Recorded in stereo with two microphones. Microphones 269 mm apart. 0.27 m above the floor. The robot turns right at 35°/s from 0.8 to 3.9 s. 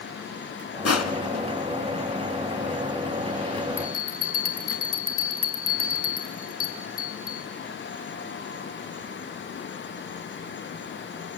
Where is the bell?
45° left (ahead or behind), 2 m; by 7.5 s 50° left (ahead or behind), 2 m.